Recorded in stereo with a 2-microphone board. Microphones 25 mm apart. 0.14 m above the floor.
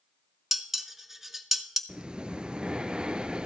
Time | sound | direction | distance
0.5 | dishes clattering | 10° right (ahead or behind) | 0.8 m
1.9 | breathing | 40° right (ahead or behind) | 0.6 m